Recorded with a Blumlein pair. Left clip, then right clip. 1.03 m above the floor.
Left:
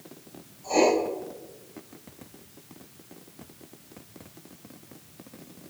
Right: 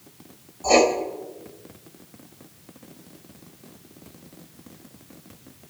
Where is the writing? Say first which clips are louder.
Right 5 dB; 35° right, 3.5 m.